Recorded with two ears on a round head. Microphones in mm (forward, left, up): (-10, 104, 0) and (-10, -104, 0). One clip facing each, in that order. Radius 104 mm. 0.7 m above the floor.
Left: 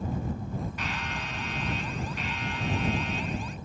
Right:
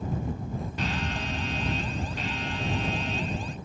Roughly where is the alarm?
Right.